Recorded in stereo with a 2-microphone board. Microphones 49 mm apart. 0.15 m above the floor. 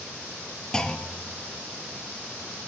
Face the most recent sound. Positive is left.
turn(degrees=15)  # may be behind; listen again after turning